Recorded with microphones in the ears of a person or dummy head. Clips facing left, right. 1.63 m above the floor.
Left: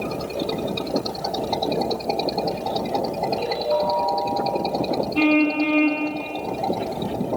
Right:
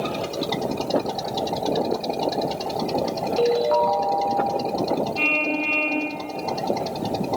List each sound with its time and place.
3.4 s a ringtone: 60° right (ahead or behind), 3 m
5.2 s a car horn: 60° left (ahead or behind), 6 m